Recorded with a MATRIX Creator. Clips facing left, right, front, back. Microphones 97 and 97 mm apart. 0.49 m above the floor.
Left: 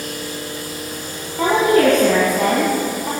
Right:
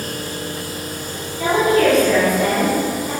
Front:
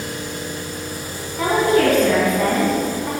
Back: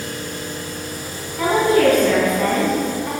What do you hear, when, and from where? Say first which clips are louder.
1.4 s a woman speaking: left 1 dB, back 1 dB; 85° left, 3.5 m